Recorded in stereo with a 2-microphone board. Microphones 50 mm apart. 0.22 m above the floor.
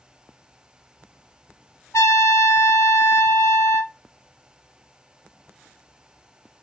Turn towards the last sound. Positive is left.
turn(degrees=75)  # may be behind; listen again after turning